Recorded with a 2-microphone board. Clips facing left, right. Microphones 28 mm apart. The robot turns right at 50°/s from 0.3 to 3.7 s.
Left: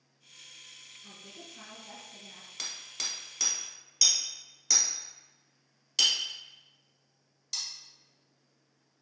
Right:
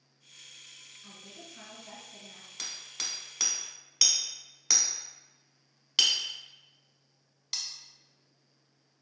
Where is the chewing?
I don't hear chewing.